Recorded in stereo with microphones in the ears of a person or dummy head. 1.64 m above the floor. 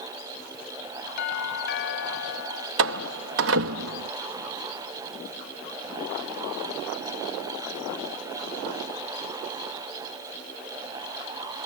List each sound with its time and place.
1.2 s a doorbell: 60° left (ahead or behind)
2.8 s a door slam: 70° right (ahead or behind)